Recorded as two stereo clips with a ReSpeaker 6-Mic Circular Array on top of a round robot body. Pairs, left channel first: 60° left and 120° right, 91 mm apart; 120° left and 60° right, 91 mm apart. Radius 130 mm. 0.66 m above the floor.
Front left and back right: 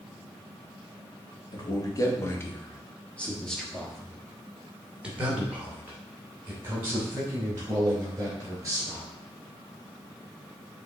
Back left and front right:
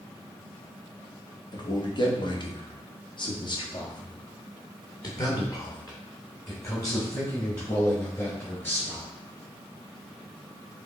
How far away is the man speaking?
About 1.6 m.